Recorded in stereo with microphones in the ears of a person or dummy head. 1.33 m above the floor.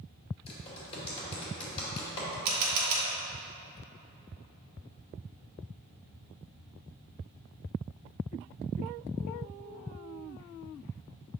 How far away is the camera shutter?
About 1.2 m.